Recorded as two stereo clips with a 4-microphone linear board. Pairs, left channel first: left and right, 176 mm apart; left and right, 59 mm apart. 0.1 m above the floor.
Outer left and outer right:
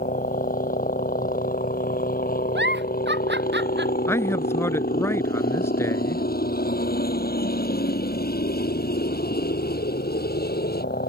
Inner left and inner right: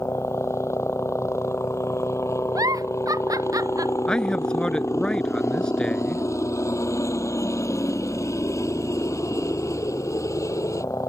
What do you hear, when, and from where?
0.0 s a helicopter: 50° left (ahead or behind); by 11.1 s 60° left (ahead or behind)
2.5 s a giggle: 85° right
4.1 s a man speaking: 15° left (ahead or behind)